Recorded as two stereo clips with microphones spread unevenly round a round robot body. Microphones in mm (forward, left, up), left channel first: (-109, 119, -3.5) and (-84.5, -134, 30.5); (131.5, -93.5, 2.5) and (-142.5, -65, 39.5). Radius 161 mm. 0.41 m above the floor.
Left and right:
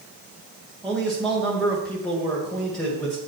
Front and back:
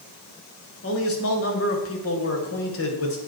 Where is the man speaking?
15° left, 2 m.